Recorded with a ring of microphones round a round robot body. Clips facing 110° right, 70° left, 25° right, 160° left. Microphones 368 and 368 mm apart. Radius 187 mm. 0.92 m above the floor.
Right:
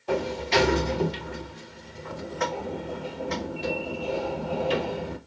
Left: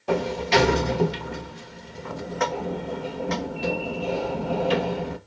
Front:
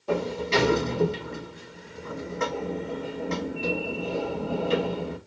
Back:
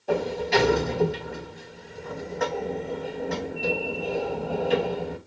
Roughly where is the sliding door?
Ahead left.